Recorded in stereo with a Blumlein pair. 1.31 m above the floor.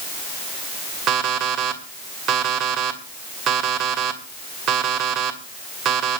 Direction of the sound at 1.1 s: 30° right.